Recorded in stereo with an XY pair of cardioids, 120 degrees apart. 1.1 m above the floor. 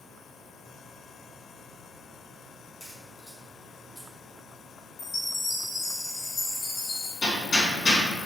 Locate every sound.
2.8 s a crack: 20° left, 2.0 m
5.0 s a chime: 40° left, 1.2 m
7.2 s hammering: 35° left, 1.7 m